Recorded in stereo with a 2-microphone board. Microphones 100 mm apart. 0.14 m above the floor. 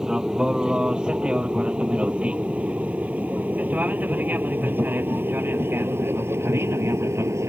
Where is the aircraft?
5° right (ahead or behind); by 7.5 s 25° right (ahead or behind).